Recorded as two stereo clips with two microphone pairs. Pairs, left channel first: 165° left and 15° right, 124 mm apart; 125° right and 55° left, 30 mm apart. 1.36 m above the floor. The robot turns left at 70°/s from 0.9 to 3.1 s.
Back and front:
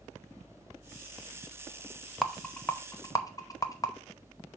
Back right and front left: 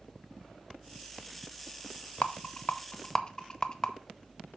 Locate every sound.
2.2 s a rattle: 100° right, 0.7 m; by 3.9 s 160° right, 0.7 m